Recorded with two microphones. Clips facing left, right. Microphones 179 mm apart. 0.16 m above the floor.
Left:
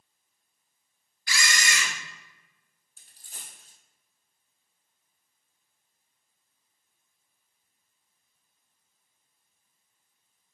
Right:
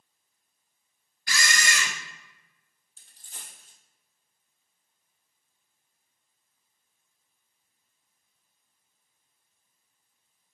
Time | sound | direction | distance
1.3 | a camera shutter | 55° right (ahead or behind) | 0.6 m
3.0 | a dropped coin | 10° left (ahead or behind) | 1.0 m